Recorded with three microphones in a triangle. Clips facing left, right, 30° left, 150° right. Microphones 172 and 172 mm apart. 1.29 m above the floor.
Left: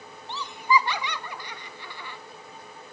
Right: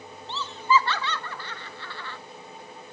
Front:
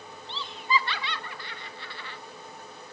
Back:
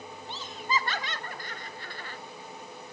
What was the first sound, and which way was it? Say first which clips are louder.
Laughter: right 1 dB, front 3 dB; 165° left.